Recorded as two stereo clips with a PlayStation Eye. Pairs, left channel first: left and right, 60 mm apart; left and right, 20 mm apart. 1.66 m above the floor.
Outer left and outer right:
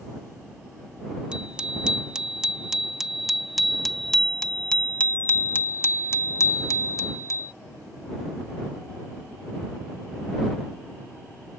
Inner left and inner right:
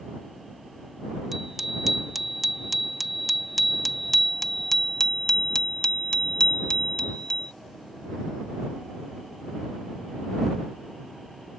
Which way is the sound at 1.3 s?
15° right (ahead or behind).